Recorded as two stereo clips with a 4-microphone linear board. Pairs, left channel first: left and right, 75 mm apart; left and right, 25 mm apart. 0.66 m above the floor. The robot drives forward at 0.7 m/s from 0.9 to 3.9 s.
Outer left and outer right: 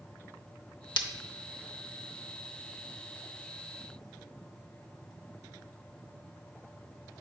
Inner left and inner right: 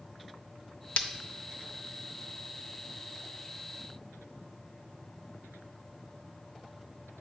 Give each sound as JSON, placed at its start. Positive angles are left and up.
{"t": 1.0, "sound": "breaking glass", "side_deg": 80, "distance_m": 0.6}